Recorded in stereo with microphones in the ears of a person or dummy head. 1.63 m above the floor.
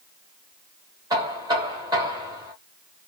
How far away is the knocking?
About 1.2 m.